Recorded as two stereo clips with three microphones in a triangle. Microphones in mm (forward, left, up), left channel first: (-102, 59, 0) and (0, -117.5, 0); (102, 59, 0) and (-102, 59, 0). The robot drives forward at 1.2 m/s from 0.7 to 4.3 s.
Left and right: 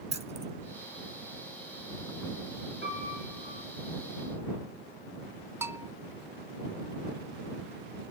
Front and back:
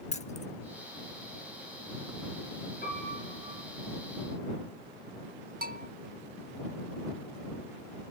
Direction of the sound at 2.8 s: 40° right.